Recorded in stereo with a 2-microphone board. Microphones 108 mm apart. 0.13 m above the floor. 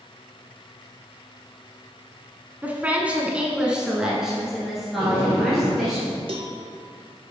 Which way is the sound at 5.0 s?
25° right (ahead or behind).